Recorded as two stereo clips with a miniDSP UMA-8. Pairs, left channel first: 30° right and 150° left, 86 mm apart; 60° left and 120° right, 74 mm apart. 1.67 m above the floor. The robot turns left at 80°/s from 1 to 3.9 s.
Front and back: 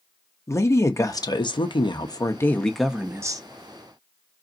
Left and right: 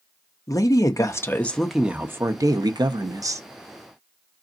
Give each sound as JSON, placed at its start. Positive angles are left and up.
{"t": 0.5, "sound": "a woman speaking", "azimuth_deg": 25, "distance_m": 0.7}